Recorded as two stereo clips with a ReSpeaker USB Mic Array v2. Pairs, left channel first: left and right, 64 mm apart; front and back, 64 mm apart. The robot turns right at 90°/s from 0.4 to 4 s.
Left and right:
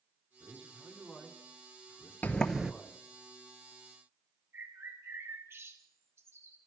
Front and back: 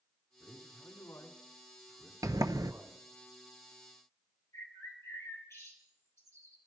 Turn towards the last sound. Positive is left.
turn(degrees=-40)